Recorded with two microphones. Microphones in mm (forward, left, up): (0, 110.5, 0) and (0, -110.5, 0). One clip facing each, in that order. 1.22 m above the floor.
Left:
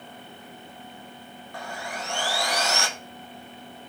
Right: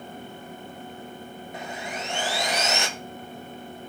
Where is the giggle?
No giggle in this recording.